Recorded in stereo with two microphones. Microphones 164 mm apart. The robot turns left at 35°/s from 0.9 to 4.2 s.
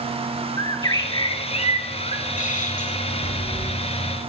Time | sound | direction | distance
0.6 | a bird | 150° left | 0.7 m
3.2 | a crack | 50° right (ahead or behind) | 5.5 m